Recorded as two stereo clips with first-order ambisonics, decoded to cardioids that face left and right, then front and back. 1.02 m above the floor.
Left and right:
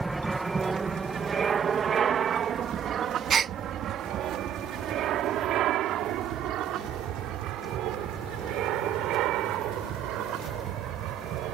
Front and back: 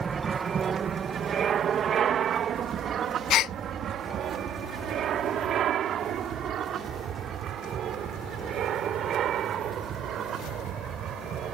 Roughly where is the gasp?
Ahead right.